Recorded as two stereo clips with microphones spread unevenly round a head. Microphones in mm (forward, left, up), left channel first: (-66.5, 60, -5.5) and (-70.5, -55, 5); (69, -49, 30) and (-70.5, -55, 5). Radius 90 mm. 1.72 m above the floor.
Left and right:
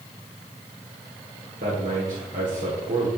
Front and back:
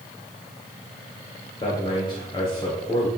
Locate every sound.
1.6 s a man speaking: 55° right, 1.4 m